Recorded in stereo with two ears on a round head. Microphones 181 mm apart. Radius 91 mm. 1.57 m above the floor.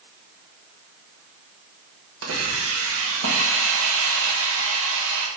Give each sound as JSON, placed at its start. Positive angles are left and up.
{"t": 2.2, "sound": "a hiss", "side_deg": -65, "distance_m": 1.2}